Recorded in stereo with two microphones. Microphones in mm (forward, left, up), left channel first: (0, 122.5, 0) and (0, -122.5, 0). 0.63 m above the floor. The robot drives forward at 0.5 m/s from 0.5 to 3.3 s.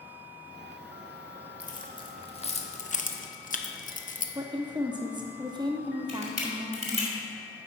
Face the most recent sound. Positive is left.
turn(degrees=-25)  # may be behind; listen again after turning